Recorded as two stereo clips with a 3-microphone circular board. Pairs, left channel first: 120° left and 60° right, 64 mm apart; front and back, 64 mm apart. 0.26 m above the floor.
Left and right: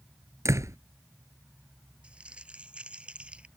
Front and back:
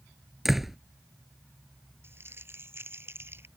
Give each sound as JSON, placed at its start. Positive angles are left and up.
{"t": 0.5, "sound": "a door slam", "azimuth_deg": -90}
{"t": 2.0, "sound": "crumpling", "azimuth_deg": -130}